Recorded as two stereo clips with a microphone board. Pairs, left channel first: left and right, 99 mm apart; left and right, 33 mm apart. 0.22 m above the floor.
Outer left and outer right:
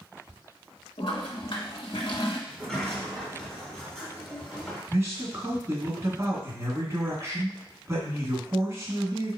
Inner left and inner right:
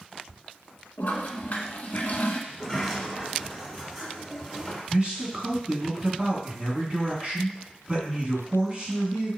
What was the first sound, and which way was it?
A toilet flushing, 65° left (ahead or behind).